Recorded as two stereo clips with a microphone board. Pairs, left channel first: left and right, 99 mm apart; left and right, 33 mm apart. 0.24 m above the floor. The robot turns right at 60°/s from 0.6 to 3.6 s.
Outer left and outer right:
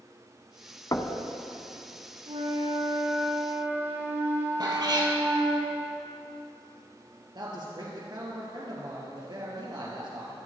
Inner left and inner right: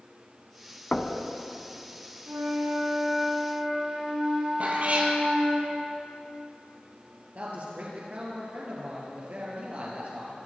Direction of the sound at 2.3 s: 105° right.